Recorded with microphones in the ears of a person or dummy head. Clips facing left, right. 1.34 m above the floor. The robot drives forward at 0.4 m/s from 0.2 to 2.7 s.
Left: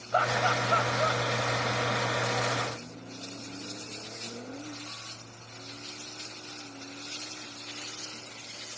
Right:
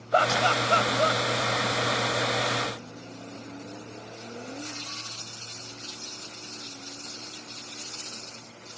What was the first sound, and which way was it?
Laughter, 50° right (ahead or behind).